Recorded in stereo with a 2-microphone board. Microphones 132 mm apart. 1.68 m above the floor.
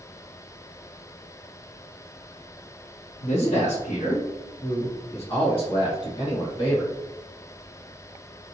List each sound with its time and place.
3.2 s a man speaking: 60° left (ahead or behind), 1.0 m; by 6.9 s 30° left (ahead or behind), 1.9 m